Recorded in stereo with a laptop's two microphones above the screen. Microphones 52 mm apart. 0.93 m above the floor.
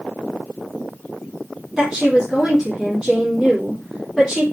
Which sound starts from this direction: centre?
A woman speaking, at 1.8 s.